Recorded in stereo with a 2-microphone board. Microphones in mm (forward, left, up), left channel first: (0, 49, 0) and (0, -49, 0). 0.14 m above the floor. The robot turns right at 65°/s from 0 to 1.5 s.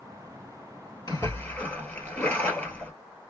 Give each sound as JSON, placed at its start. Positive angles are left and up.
{"t": 1.1, "sound": "a splash", "side_deg": 40, "distance_m": 1.8}